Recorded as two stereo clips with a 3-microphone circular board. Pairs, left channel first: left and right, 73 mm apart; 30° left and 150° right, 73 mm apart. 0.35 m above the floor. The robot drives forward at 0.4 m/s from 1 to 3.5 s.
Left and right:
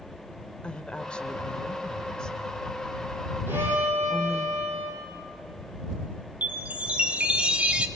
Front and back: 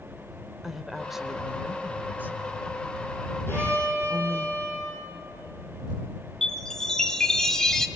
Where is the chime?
40° right, 1.1 m.